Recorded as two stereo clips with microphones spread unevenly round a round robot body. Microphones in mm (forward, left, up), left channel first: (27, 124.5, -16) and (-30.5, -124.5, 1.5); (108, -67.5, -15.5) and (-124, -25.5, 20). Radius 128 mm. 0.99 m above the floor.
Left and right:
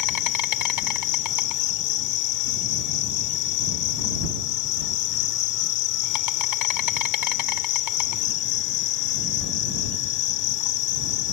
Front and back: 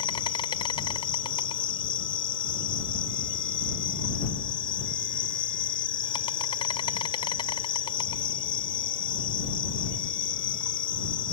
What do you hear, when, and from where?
0.0 s an insect: 65° left